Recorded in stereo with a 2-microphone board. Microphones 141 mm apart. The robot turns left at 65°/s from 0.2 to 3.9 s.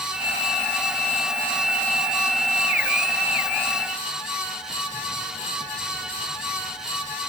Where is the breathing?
No breathing in this recording.